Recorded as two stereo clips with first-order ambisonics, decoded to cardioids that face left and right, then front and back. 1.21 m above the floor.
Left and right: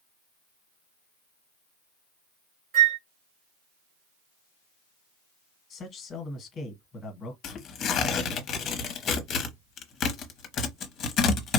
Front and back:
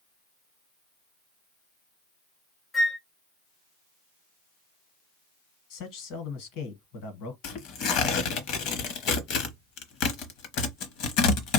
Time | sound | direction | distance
2.7 | a flute | 80° right | 2.5 m
5.7 | a man speaking | 20° left | 1.2 m
7.4 | tearing paper | 30° left | 0.8 m